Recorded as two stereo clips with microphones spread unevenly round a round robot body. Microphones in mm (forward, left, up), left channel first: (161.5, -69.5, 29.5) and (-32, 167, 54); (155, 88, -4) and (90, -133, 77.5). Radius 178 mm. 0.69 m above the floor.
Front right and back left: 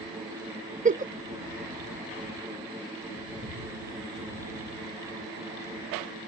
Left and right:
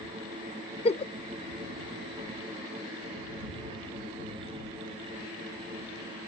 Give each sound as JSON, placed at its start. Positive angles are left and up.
{"t": 0.8, "sound": "a giggle", "azimuth_deg": 70}